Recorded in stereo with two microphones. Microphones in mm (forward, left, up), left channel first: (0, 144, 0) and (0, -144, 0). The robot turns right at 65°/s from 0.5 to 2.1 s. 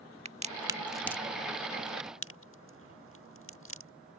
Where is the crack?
20° right (ahead or behind); by 3.9 s 45° left (ahead or behind).